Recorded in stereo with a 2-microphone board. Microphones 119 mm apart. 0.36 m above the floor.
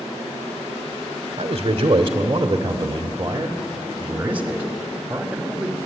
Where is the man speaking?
45° right (ahead or behind), 1.6 m; by 5.8 s 5° right (ahead or behind), 2.5 m.